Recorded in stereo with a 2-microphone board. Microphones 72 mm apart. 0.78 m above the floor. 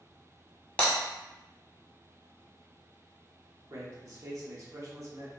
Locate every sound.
0.8 s breaking glass: 20° left (ahead or behind), 0.9 m
3.7 s a man speaking: 45° right (ahead or behind), 0.7 m